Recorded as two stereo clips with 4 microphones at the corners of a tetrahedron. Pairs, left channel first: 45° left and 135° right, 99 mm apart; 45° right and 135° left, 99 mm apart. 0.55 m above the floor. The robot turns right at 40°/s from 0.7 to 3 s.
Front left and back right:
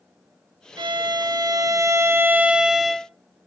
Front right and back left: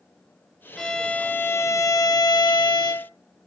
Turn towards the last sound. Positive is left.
turn(degrees=-40)